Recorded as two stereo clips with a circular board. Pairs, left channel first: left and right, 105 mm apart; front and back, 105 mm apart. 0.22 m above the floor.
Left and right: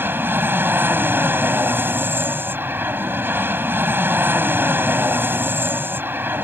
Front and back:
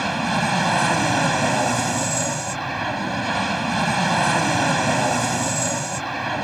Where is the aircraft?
90° right.